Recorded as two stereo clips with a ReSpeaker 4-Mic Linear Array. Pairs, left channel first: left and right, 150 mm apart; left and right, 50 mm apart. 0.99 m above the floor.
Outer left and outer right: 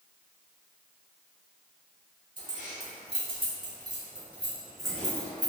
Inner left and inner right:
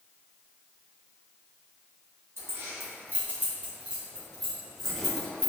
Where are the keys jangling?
60° right (ahead or behind), 1.2 m; by 5.5 s 15° left (ahead or behind), 1.5 m.